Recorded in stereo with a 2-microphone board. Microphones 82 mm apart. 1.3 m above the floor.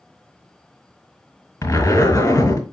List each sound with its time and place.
1.6 s a zipper: 45° left (ahead or behind), 1.6 m